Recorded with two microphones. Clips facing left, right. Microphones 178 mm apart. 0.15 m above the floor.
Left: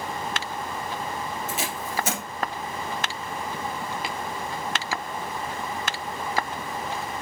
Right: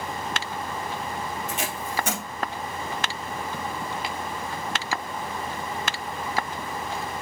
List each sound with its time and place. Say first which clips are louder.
1.5 s tape being pulled: even; 5° left (ahead or behind), 1.5 m